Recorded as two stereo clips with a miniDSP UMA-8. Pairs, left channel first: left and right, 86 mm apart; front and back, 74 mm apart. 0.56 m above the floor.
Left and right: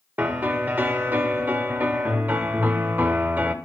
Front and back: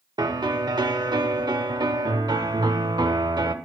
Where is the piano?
160° right, 0.5 m.